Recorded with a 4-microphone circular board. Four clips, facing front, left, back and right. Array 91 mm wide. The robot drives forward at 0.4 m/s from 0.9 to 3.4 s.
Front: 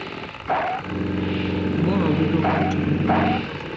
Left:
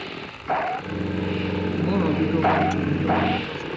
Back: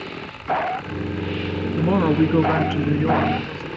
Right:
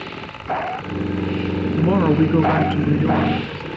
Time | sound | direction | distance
1.8 | a woman speaking | 120° right | 1.1 m